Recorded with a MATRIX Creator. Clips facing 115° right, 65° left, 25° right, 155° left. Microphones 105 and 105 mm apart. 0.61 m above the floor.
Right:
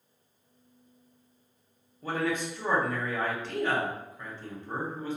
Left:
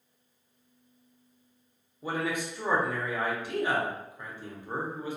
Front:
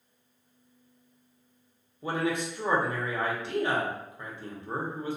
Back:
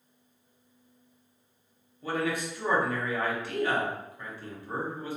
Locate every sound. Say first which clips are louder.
2.0 s a man speaking: right 1 dB, front 1 dB; 5° left, 0.6 m